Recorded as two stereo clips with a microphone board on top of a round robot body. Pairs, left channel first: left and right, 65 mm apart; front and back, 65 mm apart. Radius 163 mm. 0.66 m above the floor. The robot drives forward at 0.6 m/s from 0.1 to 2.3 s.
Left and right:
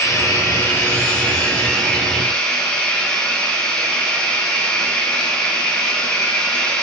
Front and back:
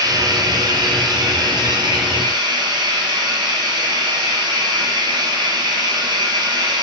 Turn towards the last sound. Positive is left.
turn(degrees=165)